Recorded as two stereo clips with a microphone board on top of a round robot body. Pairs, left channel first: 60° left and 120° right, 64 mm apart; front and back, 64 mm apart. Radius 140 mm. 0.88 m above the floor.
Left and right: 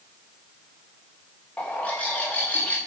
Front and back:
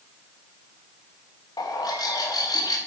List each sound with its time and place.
1.6 s a bird: 10° right, 1.3 m